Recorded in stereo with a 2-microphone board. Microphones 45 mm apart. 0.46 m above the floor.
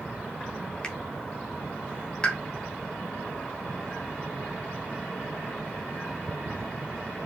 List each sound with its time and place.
0.8 s a finger snap: 20° left (ahead or behind), 0.7 m
2.2 s a pop: 25° left (ahead or behind), 0.9 m